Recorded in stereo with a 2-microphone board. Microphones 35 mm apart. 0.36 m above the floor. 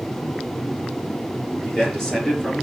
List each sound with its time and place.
1.6 s a man speaking: 10° left (ahead or behind), 5 m; by 2.6 s 15° left (ahead or behind), 5 m